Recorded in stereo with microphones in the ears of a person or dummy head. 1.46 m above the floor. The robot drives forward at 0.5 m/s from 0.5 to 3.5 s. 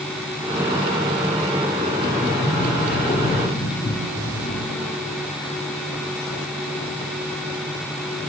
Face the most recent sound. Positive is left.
turn(degrees=25)  # may be behind; listen again after turning